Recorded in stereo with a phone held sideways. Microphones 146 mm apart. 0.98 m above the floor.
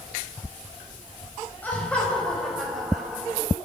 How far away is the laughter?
About 5 m.